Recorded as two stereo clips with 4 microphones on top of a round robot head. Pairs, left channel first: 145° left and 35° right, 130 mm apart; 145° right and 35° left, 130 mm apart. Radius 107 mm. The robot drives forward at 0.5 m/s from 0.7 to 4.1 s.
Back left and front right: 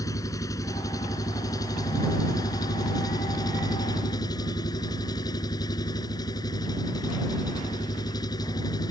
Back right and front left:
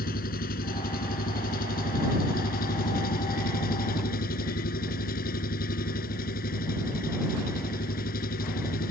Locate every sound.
0.0 s an engine running: 145° right; by 8.9 s 150° right